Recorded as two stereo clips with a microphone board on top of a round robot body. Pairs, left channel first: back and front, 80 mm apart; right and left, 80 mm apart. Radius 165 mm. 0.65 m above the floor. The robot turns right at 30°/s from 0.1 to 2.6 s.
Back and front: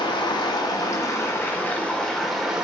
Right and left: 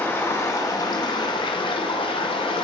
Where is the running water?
155° right, 0.7 m; by 2.7 s 80° right, 0.7 m.